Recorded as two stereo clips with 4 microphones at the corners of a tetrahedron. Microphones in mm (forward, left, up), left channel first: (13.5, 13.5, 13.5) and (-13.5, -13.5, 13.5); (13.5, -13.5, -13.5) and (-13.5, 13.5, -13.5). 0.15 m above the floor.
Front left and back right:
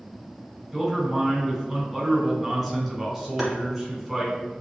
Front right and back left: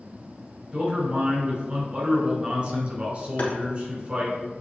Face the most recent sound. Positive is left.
turn(degrees=-45)